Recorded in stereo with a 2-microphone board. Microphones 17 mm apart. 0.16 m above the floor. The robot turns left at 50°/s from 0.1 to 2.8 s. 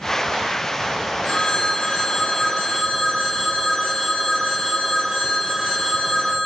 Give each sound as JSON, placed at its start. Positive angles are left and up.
{"t": 1.2, "sound": "a phone ringing", "azimuth_deg": 75, "distance_m": 3.0}